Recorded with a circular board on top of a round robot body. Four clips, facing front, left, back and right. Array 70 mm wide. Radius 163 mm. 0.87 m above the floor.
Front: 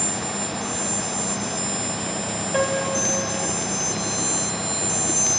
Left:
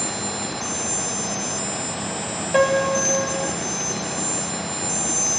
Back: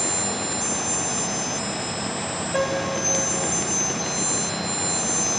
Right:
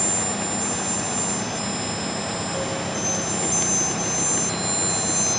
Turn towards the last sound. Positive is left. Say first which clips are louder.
# left 14 dB, front 1 dB
turn(degrees=85)